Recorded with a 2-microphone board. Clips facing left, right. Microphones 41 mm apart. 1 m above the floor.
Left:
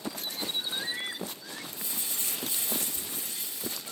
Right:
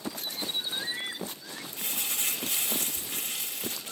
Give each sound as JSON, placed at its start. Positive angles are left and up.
{"t": 1.8, "sound": "crumpling", "side_deg": -80, "distance_m": 4.5}